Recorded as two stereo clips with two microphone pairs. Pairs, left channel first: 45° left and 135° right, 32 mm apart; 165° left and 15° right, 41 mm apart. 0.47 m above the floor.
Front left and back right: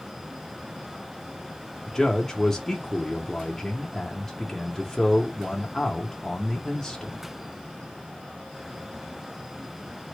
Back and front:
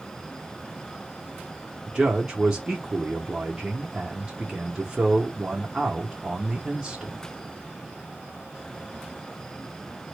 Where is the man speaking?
5° right, 0.7 m.